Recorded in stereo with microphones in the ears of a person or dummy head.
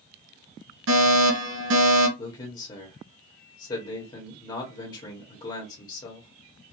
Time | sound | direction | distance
0.9 | a fire alarm | 70° right (ahead or behind) | 2.0 m
2.2 | a man speaking | 30° left (ahead or behind) | 1.2 m